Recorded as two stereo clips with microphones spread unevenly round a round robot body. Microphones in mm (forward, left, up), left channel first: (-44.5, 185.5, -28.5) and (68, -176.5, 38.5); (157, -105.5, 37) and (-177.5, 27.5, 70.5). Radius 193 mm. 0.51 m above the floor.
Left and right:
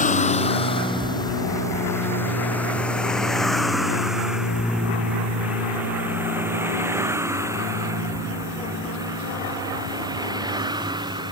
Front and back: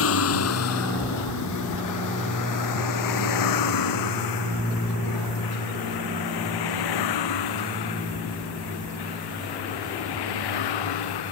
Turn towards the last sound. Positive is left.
turn(degrees=5)